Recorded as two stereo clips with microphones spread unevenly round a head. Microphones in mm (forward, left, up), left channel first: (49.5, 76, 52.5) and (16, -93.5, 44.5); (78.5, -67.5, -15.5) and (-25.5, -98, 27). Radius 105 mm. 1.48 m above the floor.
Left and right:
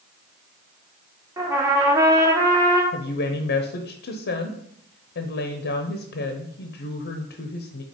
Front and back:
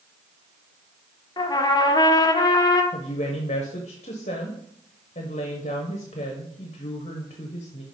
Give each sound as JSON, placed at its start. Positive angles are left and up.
{"t": 1.4, "sound": "a trumpet", "azimuth_deg": -40, "distance_m": 1.1}
{"t": 2.9, "sound": "a woman speaking", "azimuth_deg": 60, "distance_m": 0.9}